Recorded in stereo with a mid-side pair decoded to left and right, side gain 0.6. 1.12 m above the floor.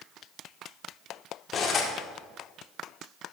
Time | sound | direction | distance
1.5 | cutlery clinking | 40° left | 1.4 m